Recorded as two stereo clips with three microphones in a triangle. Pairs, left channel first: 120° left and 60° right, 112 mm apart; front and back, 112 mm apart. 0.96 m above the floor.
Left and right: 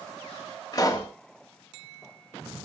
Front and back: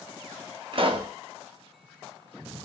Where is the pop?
170° left, 0.6 m.